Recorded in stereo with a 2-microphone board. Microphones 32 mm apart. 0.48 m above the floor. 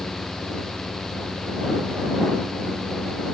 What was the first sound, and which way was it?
Only background noise.